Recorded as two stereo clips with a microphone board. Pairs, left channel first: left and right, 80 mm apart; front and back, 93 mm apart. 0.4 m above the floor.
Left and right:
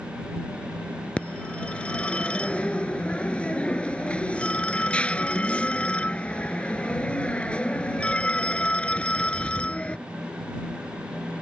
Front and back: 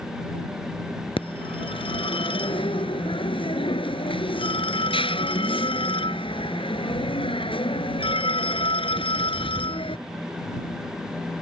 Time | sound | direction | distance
1.2 | a phone ringing | 15° left | ?